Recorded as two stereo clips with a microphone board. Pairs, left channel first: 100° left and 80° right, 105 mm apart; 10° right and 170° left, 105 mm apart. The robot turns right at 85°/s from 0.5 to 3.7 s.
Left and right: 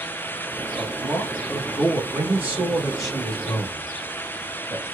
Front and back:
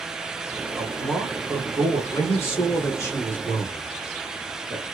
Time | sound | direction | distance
0.8 | a man speaking | 60° left | 1.4 m
2.1 | a man speaking | 65° right | 1.3 m